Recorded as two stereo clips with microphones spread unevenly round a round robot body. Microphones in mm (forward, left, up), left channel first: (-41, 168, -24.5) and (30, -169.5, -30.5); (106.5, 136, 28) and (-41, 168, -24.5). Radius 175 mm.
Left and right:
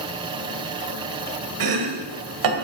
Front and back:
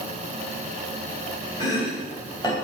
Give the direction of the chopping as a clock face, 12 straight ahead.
3 o'clock.